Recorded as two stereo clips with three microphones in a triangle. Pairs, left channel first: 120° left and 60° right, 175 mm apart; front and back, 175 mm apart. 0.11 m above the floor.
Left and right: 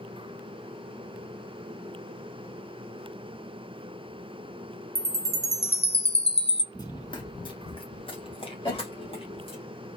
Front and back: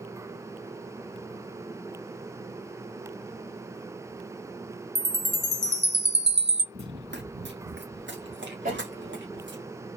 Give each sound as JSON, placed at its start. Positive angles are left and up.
{"t": 5.0, "sound": "a chime", "azimuth_deg": 175, "distance_m": 0.9}
{"t": 6.7, "sound": "running footsteps", "azimuth_deg": -175, "distance_m": 0.7}
{"t": 8.7, "sound": "a cough", "azimuth_deg": 175, "distance_m": 2.5}